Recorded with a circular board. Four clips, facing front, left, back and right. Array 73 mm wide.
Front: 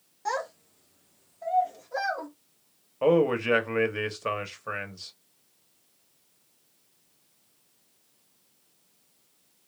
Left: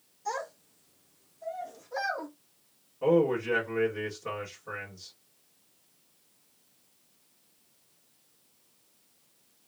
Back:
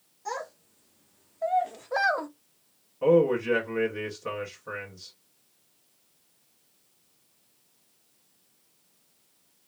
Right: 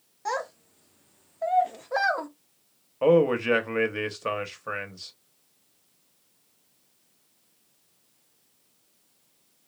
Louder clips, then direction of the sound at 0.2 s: Right 4 dB, front 4 dB; 60° right.